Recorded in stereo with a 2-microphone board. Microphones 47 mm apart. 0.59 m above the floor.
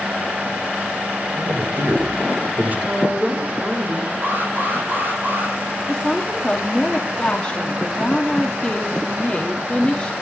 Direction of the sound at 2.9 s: 30° right (ahead or behind).